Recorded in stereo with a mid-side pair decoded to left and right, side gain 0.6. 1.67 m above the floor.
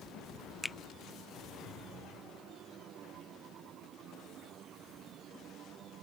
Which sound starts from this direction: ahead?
A finger snap, at 0.6 s.